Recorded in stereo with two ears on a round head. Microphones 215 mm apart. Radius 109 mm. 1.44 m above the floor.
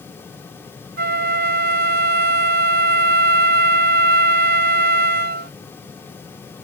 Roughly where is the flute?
Right.